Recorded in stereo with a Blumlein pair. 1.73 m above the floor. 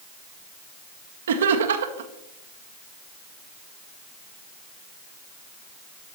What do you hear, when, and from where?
1.3 s laughter: 60° right, 0.7 m